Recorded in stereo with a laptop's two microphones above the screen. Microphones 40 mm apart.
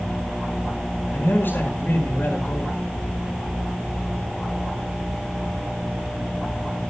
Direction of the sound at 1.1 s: 65° left (ahead or behind).